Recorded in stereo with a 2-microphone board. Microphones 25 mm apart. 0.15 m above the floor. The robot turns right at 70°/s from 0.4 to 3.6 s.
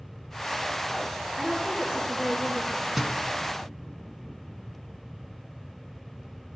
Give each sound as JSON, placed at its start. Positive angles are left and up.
{"t": 1.4, "sound": "a woman speaking", "azimuth_deg": 175, "distance_m": 1.9}
{"t": 3.0, "sound": "a thud", "side_deg": -10, "distance_m": 0.8}